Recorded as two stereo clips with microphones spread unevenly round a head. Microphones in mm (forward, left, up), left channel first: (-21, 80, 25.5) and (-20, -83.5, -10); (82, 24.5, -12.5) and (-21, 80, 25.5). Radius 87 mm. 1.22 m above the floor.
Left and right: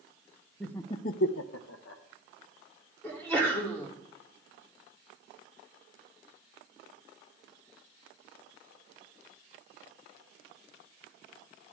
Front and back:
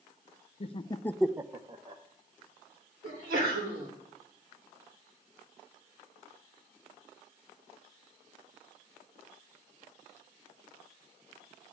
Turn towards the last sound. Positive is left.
turn(degrees=170)